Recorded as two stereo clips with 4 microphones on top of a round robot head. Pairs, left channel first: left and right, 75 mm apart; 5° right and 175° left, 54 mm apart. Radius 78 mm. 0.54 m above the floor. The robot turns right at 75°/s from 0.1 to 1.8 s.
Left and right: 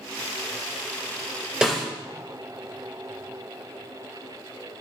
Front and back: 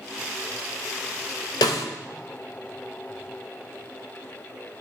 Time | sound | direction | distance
1.6 | a snare drum | 5° right | 0.6 m